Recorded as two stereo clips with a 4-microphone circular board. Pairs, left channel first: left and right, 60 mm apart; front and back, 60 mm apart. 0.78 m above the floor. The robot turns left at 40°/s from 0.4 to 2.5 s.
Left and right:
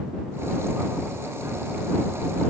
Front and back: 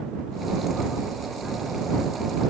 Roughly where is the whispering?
No whispering in this recording.